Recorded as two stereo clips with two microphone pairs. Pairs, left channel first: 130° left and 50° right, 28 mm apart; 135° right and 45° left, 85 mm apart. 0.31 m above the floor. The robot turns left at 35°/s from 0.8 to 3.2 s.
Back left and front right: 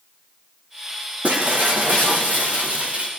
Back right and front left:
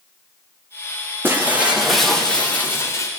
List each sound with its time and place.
1.2 s breaking glass: 20° right, 8.5 m; by 3.1 s 85° right, 8.5 m